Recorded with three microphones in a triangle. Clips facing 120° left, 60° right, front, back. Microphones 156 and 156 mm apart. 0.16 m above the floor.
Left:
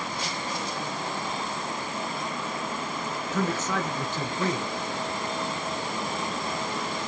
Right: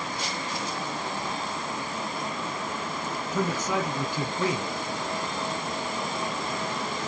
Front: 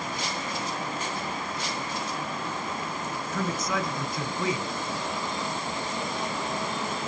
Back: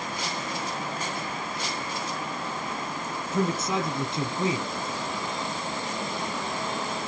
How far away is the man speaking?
About 1.4 m.